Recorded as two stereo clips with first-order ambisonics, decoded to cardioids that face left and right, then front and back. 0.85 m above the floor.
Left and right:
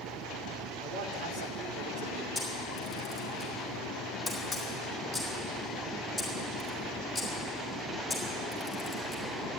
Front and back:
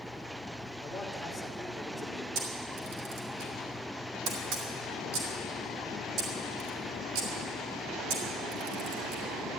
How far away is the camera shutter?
About 3.5 m.